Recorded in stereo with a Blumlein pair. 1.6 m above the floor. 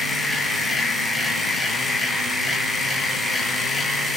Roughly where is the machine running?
Ahead.